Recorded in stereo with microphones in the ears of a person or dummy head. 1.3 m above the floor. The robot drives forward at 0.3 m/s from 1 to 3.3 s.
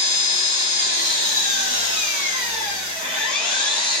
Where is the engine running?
35° right (ahead or behind), 1.2 m; by 4.0 s 25° right (ahead or behind), 1.8 m.